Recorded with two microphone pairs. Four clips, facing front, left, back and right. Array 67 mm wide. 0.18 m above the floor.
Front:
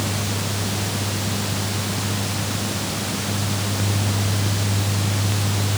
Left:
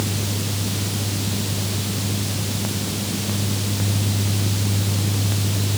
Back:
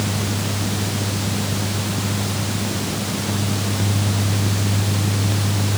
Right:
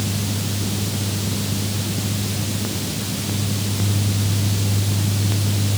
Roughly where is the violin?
No violin in this recording.